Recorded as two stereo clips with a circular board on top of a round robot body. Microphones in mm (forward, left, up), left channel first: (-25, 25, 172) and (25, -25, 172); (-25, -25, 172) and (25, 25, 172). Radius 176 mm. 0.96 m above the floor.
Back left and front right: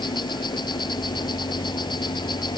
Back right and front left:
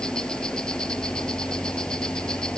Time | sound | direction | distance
0.0 | an insect | 145° left | ?